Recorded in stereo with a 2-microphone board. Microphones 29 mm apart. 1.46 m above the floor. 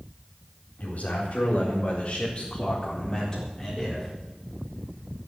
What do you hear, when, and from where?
0.8 s a man speaking: 70° left (ahead or behind), 4 m; by 4.1 s 15° left (ahead or behind), 4.5 m